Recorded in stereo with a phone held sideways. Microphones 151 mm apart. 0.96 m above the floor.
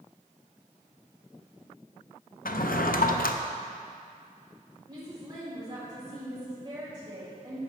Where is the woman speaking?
30° right (ahead or behind), 3 m.